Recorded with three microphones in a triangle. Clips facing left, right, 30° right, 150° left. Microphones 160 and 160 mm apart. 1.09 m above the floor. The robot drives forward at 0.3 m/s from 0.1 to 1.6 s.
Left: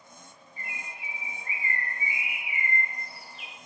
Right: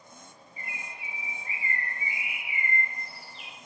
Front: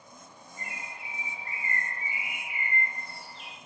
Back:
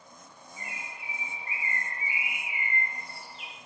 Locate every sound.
0.6 s a bird: 60° left, 1.1 m; by 3.5 s 85° left, 1.0 m